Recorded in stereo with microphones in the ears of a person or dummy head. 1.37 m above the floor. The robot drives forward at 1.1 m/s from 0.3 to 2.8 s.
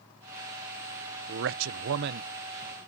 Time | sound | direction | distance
1.3 | a man speaking | 55° right (ahead or behind) | ?